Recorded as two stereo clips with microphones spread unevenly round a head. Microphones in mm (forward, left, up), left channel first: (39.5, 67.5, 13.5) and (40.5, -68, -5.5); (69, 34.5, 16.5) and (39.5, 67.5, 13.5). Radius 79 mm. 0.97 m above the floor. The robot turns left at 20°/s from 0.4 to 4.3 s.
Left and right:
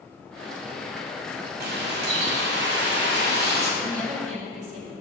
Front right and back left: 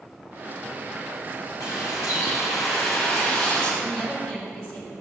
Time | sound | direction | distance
1.6 | a bird | 85° right | 1.7 m
3.8 | a woman speaking | 125° right | 2 m